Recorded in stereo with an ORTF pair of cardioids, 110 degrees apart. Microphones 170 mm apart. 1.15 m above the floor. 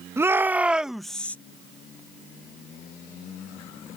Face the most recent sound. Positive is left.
turn(degrees=10)